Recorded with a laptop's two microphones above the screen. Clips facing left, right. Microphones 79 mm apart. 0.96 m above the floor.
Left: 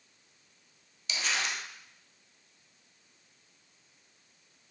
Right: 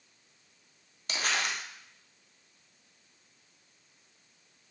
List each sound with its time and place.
1.1 s crumpling: 55° right (ahead or behind), 0.6 m